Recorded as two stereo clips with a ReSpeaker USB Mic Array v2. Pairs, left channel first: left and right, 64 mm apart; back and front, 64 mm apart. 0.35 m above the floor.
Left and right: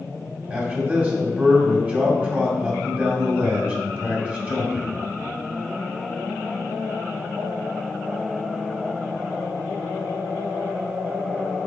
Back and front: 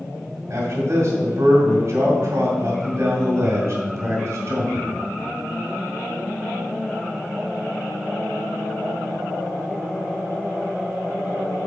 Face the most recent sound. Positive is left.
turn(degrees=-30)